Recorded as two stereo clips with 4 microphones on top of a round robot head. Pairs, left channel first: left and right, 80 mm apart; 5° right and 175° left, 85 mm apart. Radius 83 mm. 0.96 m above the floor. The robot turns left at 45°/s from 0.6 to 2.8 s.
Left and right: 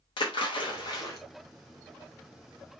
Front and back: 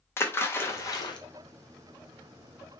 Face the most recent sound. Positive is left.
turn(degrees=-40)